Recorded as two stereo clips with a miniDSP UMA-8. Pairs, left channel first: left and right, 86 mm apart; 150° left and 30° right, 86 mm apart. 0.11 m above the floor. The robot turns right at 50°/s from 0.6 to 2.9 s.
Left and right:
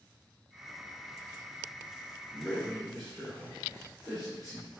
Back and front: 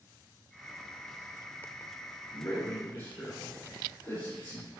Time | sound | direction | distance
2.3 | a man speaking | 150° left | 1.6 m